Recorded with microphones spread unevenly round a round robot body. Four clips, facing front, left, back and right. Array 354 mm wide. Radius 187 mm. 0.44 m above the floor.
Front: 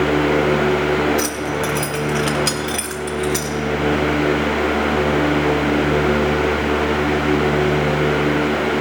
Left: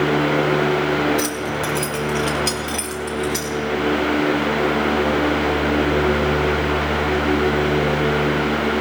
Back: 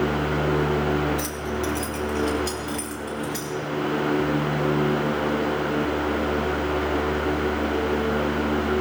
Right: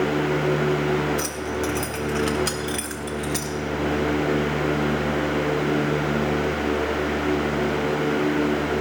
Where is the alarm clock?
I don't hear an alarm clock.